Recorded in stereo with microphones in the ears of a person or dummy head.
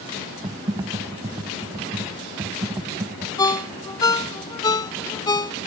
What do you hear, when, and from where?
0.4 s typing on a keyboard: 20° right (ahead or behind)
3.4 s a ringtone: 15° left (ahead or behind)